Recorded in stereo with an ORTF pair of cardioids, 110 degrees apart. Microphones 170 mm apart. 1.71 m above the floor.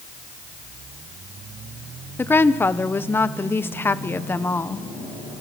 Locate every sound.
2.2 s a woman speaking: 15° left, 1.0 m